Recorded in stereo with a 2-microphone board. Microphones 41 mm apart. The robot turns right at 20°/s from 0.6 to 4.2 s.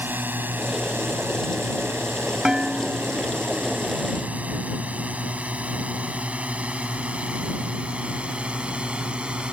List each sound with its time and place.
0.0 s a drone: 55° right (ahead or behind); by 9.5 s 25° right (ahead or behind)
2.5 s dishes clattering: 15° right (ahead or behind); by 3.2 s 35° right (ahead or behind)